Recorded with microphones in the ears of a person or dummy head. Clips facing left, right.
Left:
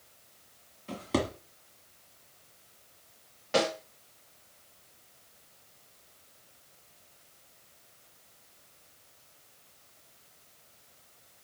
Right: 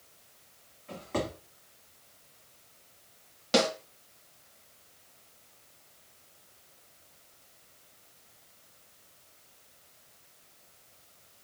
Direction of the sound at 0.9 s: 45° left (ahead or behind).